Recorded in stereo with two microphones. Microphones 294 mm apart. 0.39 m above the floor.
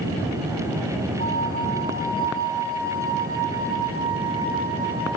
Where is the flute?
30° left (ahead or behind), 6.5 m.